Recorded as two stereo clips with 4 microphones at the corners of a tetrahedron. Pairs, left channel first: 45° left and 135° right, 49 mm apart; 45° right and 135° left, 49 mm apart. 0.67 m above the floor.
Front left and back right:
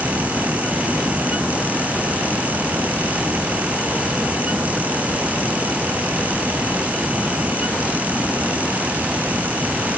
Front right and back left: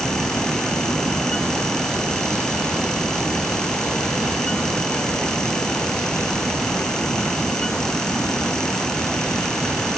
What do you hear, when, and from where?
Only background noise.